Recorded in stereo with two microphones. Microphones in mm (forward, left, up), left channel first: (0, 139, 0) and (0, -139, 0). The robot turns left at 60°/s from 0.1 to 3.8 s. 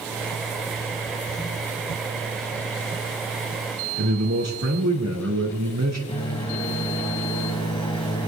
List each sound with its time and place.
4.0 s a man speaking: 70° right (ahead or behind), 3.5 m
6.1 s a microwave: 20° left (ahead or behind), 1.7 m